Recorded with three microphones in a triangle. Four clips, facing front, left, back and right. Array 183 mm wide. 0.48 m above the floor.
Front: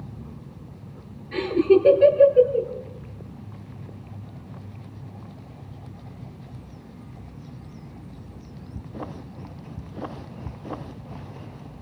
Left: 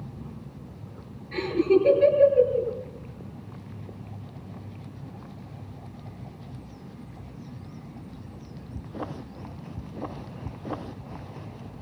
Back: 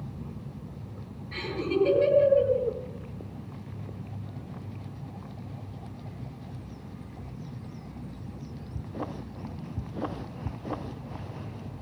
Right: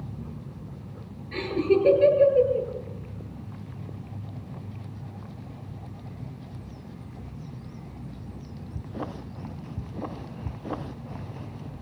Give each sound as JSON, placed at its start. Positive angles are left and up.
{"t": 1.3, "sound": "laughter", "azimuth_deg": 0, "distance_m": 8.5}